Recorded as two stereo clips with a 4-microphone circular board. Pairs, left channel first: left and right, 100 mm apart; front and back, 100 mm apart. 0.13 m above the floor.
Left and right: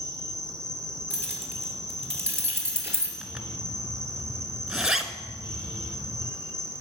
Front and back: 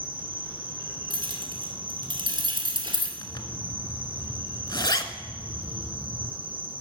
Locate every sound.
0.0 s an insect: 150° right, 1.7 m
1.1 s keys jangling: 155° right, 1.8 m
3.2 s a zipper: 10° right, 0.7 m